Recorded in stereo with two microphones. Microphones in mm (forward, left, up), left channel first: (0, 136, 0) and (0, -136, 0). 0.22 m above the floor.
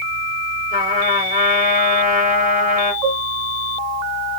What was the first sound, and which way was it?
A trumpet, 35° right (ahead or behind).